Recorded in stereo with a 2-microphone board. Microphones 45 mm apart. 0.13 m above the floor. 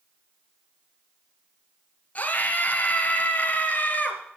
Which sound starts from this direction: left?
A scream, at 2.1 s.